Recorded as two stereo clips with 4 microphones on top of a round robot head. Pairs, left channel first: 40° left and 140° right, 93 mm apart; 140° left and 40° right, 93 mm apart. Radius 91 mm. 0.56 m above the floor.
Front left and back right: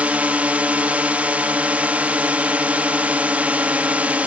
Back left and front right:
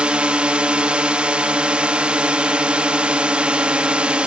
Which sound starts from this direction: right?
A drone, at 0.0 s.